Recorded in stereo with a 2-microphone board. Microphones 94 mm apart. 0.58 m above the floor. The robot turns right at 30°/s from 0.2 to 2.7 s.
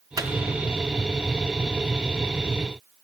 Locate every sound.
0.2 s a microwave: 35° right (ahead or behind), 0.5 m